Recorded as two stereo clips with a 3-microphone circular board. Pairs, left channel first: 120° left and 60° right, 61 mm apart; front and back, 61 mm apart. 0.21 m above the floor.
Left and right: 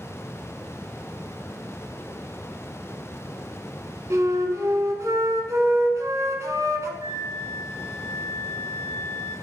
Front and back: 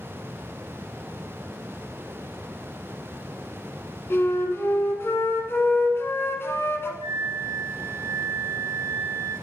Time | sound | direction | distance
4.1 | a flute | 40° right | 1.0 m
7.0 | a flute | 15° right | 3.5 m